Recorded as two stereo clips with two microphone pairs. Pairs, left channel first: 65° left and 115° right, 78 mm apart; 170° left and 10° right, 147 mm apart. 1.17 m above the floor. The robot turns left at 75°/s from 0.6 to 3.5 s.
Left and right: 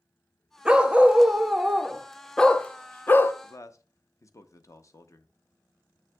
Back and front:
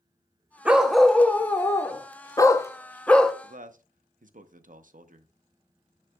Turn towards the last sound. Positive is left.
turn(degrees=15)